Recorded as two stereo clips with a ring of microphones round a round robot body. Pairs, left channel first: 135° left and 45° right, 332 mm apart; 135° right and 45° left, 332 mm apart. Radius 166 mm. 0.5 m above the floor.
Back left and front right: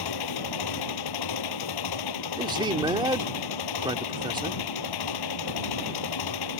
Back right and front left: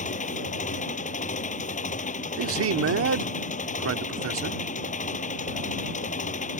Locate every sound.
0.0 s an engine running: 155° left
2.4 s a man speaking: 25° left